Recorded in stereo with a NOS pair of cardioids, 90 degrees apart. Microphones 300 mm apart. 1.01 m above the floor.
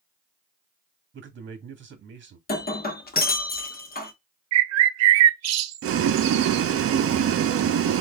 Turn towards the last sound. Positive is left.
turn(degrees=-50)